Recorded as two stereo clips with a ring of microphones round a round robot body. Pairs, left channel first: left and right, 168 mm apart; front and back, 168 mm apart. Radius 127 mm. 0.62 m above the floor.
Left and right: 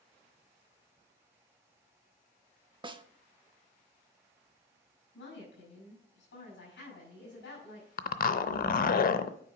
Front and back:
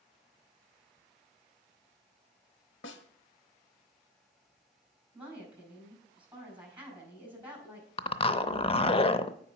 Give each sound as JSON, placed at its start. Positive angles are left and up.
{"t": 2.8, "sound": "a snare drum", "azimuth_deg": -25, "distance_m": 0.7}
{"t": 5.1, "sound": "a woman speaking", "azimuth_deg": 100, "distance_m": 5.0}
{"t": 8.0, "sound": "a zipper", "azimuth_deg": 55, "distance_m": 0.6}